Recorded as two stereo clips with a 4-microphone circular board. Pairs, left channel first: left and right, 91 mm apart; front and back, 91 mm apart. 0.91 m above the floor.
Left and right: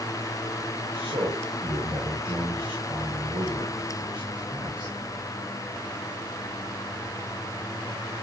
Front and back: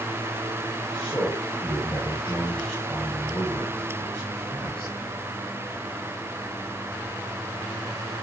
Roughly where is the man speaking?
Right.